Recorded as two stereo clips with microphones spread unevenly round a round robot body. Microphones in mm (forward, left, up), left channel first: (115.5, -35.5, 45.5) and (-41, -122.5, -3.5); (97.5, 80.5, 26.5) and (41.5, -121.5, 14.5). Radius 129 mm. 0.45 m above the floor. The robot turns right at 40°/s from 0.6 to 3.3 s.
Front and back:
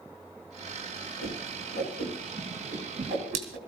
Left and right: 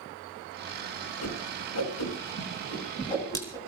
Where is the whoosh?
70° left, 4 m; by 3.6 s 155° left, 4 m.